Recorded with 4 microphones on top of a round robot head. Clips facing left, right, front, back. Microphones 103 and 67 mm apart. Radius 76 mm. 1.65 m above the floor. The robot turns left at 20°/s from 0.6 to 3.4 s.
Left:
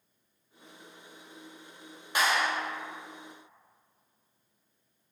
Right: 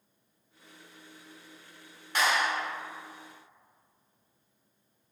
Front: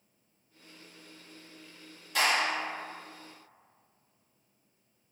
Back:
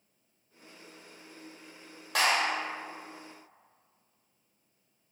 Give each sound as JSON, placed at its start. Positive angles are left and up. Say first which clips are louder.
{"t": 2.1, "sound": "a clap", "louder": "even, back 1 dB", "azimuth_deg": 170, "distance_m": 0.9}